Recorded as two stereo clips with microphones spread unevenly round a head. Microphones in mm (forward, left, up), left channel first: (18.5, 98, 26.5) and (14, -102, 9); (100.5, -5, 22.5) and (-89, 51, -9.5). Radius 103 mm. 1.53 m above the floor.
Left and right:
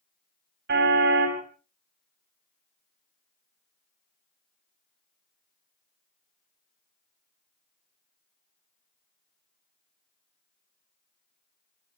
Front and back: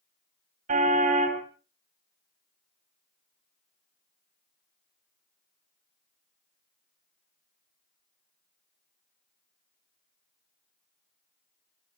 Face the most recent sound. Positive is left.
turn(degrees=-135)